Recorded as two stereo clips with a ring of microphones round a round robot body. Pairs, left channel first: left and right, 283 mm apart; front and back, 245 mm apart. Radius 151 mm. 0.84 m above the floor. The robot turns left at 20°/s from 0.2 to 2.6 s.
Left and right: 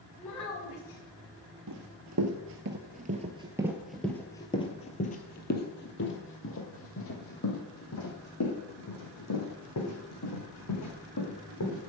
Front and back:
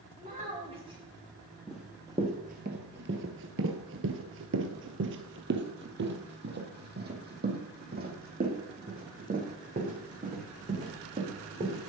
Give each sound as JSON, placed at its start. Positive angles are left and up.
{"t": 0.2, "sound": "a child speaking", "azimuth_deg": 125, "distance_m": 5.0}
{"t": 1.7, "sound": "running footsteps", "azimuth_deg": -90, "distance_m": 1.4}